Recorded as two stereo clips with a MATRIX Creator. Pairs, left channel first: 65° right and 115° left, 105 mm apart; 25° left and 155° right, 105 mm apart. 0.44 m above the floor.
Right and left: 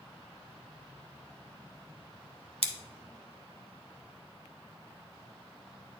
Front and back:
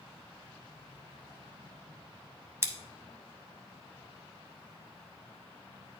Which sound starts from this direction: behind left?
Scissors, at 2.6 s.